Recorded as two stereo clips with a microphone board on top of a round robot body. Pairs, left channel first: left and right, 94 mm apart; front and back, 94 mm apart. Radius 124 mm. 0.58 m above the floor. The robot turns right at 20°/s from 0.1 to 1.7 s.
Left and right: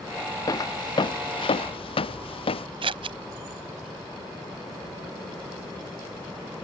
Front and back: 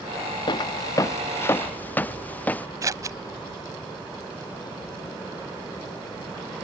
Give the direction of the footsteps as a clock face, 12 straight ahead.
11 o'clock.